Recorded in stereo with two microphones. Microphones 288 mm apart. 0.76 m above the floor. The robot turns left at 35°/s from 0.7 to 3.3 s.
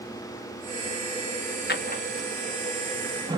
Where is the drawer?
35° left (ahead or behind), 0.5 m; by 3.4 s 15° right (ahead or behind), 0.5 m.